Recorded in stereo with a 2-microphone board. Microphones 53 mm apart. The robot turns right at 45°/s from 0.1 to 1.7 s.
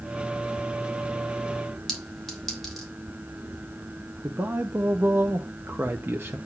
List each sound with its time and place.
1.9 s a clink: centre (ahead or behind), 3 m
4.2 s a man speaking: 40° right (ahead or behind), 0.8 m